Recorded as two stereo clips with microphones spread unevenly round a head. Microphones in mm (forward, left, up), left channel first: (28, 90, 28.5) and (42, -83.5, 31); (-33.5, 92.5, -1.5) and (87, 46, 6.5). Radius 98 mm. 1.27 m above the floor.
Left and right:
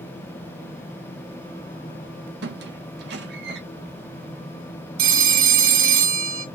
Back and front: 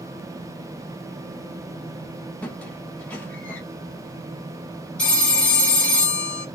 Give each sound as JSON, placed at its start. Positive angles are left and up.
{"t": 2.4, "sound": "a squeak", "azimuth_deg": -120, "distance_m": 0.7}
{"t": 5.0, "sound": "a phone ringing", "azimuth_deg": -115, "distance_m": 0.7}